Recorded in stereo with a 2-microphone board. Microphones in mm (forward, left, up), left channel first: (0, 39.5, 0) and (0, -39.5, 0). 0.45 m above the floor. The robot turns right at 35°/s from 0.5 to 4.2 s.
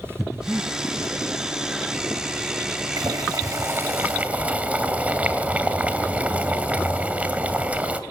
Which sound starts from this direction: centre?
Breathing, at 0.2 s.